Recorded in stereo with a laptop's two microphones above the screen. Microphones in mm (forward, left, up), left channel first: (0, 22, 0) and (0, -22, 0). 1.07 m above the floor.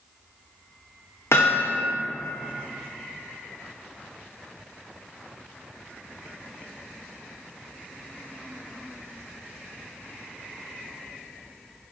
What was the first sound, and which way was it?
Hammering, 70° left (ahead or behind).